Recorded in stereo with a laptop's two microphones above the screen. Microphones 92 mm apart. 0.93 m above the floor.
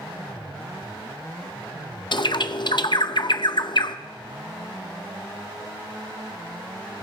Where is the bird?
55° left (ahead or behind), 0.6 m.